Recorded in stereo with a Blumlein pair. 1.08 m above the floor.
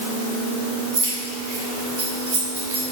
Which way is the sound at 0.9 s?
60° right.